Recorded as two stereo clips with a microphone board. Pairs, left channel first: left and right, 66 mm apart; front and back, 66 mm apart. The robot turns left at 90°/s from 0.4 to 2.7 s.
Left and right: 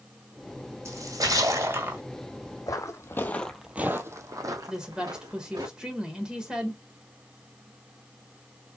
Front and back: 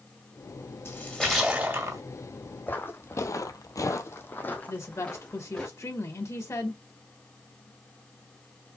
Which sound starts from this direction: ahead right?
A splash, at 0.8 s.